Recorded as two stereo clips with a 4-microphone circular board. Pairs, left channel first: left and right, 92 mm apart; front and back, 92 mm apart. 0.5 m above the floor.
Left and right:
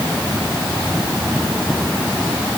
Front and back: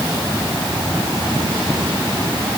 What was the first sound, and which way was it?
Only background noise.